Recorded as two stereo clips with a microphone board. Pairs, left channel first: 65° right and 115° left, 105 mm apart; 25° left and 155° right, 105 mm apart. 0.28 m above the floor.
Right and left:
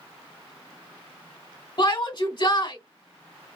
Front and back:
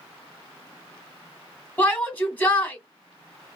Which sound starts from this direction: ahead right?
A shout, at 1.8 s.